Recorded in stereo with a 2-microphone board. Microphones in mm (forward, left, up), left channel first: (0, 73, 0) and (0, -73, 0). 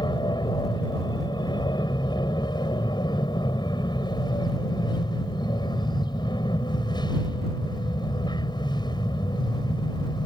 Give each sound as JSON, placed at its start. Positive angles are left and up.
{"t": 0.0, "sound": "an aircraft", "side_deg": 30}